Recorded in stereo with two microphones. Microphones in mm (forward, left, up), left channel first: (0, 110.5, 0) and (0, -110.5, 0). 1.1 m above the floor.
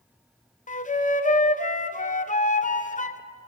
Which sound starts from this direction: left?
A flute, at 0.7 s.